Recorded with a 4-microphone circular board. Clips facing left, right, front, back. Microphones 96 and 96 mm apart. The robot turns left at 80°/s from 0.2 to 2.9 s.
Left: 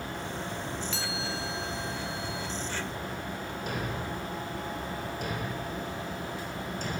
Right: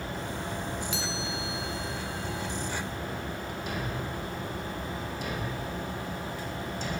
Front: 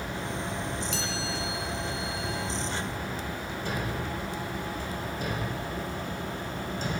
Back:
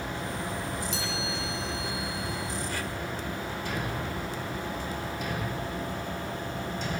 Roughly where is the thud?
Ahead left.